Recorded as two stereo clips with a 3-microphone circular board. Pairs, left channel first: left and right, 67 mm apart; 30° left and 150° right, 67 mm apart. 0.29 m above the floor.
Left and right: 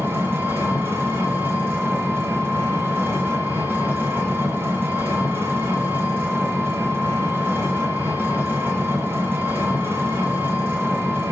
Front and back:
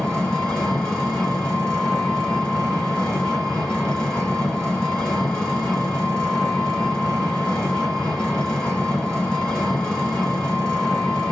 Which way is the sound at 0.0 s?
45° right.